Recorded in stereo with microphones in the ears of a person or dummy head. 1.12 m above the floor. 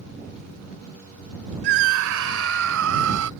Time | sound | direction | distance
1.6 | a scream | 60° right (ahead or behind) | ?